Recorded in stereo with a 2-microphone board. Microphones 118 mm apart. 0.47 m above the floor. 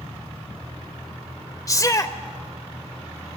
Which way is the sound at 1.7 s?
30° left (ahead or behind).